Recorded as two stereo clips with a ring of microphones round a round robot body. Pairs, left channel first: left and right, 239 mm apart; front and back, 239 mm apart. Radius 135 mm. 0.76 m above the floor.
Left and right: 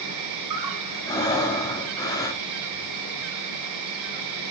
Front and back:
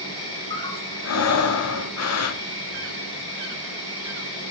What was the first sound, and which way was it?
An insect, 75° right.